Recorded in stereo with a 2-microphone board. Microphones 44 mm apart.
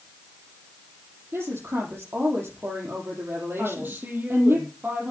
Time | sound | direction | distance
1.3 | a woman speaking | 60° right (ahead or behind) | 6 m
3.6 | a woman speaking | 50° right (ahead or behind) | 6 m